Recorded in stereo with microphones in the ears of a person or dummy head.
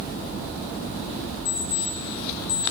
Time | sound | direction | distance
1.4 | an alarm clock | 80° left | 7.5 m